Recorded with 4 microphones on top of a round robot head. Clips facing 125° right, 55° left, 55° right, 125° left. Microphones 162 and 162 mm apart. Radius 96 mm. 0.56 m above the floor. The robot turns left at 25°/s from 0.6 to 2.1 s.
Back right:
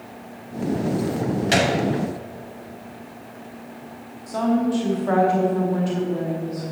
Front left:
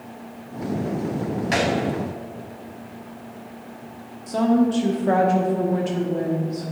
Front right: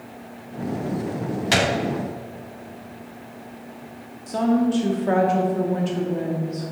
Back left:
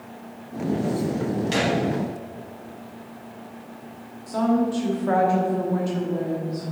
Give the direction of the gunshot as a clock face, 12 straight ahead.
2 o'clock.